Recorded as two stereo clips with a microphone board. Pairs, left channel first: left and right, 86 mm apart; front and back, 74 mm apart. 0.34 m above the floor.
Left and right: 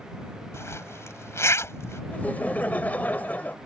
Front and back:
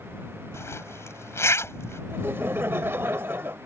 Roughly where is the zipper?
Ahead left.